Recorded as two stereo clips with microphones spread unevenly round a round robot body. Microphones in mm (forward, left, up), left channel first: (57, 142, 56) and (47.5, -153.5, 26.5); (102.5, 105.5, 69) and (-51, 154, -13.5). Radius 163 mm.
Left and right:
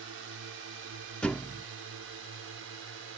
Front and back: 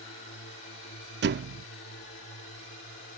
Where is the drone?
50° right.